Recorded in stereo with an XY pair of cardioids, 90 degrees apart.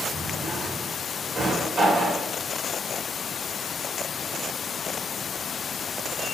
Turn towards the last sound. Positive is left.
turn(degrees=-50)